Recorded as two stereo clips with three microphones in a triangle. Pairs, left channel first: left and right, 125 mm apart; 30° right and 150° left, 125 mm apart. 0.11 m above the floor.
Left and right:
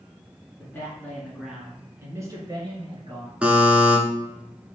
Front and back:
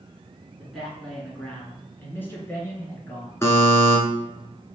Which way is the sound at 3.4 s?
25° right.